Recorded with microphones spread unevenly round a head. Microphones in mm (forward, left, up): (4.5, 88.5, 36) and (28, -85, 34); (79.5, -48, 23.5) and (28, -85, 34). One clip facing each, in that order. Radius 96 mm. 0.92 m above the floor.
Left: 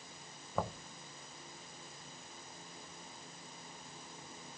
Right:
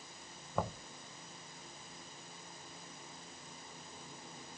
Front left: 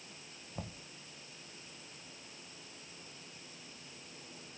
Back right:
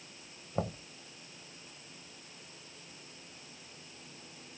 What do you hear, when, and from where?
0.6 s knocking: 170° right